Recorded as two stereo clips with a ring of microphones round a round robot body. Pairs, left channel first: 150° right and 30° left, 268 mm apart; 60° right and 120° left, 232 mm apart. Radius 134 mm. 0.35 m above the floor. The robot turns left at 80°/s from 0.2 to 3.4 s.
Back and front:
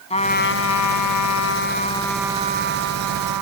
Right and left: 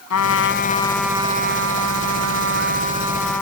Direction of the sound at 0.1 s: 85° right.